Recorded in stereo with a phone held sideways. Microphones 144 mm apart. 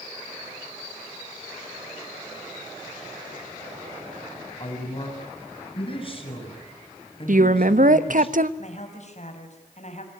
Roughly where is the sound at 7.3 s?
Right.